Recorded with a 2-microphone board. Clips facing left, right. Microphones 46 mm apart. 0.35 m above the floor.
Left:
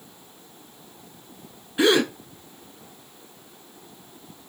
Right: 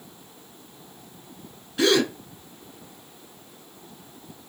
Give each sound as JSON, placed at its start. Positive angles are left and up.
{"t": 1.8, "sound": "a gasp", "side_deg": 20, "distance_m": 0.6}